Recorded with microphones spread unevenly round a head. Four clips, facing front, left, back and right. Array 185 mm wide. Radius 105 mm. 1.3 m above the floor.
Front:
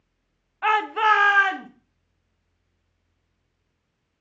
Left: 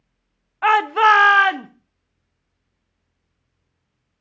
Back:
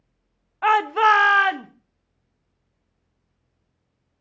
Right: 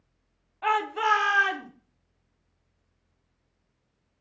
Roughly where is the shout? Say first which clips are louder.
Left 10 dB, back 3 dB; behind left.